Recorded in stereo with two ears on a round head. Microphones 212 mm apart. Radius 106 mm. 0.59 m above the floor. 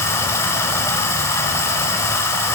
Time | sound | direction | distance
0.0 | running water | 10° left (ahead or behind) | 1.1 m